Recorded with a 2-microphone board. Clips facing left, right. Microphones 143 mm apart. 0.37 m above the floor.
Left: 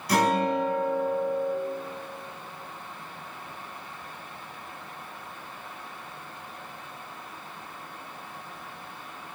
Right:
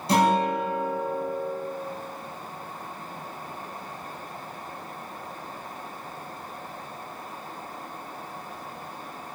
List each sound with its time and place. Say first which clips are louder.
0.1 s a guitar: right 2 dB; 25° right (ahead or behind), 3.5 m